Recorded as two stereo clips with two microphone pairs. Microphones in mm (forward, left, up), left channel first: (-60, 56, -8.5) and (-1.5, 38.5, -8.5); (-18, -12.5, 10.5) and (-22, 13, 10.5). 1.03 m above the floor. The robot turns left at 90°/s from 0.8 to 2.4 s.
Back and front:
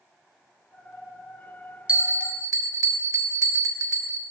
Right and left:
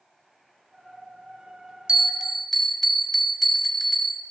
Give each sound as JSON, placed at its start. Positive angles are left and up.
{"t": 1.9, "sound": "a bell", "azimuth_deg": 55, "distance_m": 1.4}